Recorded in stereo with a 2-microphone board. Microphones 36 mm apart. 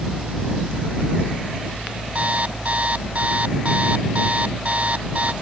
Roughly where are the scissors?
I don't hear scissors.